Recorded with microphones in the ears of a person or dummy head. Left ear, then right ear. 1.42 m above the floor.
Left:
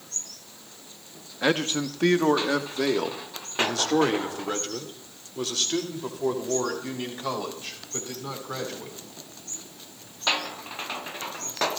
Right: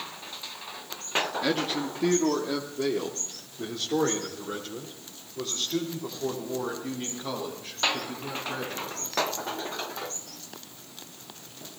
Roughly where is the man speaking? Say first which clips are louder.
Left 3 dB; left.